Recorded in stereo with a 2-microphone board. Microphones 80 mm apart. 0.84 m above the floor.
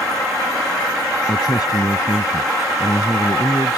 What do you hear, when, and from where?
1.3 s a man speaking: 55° left (ahead or behind)